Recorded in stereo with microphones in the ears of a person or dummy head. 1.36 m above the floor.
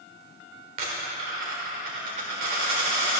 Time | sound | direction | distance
0.8 | a dropped coin | 45° right (ahead or behind) | 1.4 m